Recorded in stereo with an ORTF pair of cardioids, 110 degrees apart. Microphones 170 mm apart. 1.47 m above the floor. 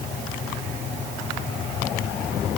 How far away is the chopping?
I don't hear chopping.